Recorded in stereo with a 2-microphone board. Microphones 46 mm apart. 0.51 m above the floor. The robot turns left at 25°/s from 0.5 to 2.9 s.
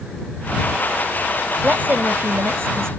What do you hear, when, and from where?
1.6 s a woman speaking: 45° right; by 2.9 s 75° right